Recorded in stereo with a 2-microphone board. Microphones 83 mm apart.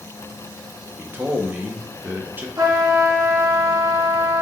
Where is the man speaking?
20° right (ahead or behind), 0.6 m.